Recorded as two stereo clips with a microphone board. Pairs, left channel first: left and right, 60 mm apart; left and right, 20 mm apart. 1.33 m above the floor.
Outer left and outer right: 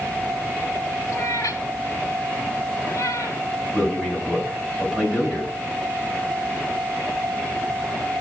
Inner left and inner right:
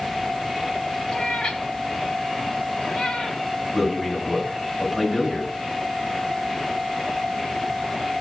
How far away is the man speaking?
About 8 m.